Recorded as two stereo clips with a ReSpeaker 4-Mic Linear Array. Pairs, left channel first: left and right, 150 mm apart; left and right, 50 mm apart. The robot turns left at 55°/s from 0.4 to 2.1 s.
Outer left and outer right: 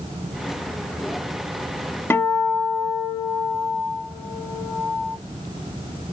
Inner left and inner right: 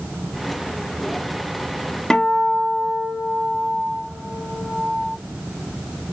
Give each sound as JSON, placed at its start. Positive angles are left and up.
{"t": 2.1, "sound": "a guitar", "side_deg": 15, "distance_m": 0.6}